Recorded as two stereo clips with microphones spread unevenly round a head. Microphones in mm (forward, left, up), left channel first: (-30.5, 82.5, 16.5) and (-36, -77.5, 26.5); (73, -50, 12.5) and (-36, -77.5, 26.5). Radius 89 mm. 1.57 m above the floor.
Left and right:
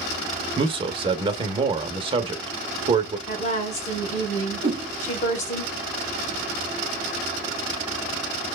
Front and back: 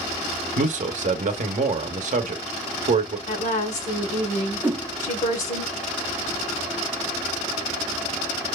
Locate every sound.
0.6 s a man speaking: 150° right, 0.7 m
3.3 s a woman speaking: 35° left, 1.0 m
4.6 s a whoosh: 100° right, 0.7 m